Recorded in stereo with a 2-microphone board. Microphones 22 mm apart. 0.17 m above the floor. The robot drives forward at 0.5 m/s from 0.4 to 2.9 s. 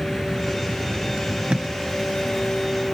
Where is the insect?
25° right (ahead or behind); by 3.0 s 15° right (ahead or behind).